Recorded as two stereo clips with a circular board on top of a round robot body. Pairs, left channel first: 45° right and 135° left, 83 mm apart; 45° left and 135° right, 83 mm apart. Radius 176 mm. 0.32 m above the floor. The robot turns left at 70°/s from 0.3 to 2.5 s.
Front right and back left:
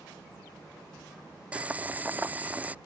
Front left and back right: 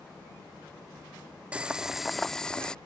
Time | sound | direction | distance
1.5 | boiling | straight behind | ?